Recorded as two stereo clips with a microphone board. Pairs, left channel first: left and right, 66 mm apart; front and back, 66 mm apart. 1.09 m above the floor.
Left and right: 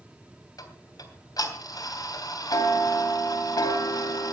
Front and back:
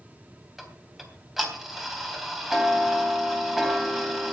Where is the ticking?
95° left, 3 m.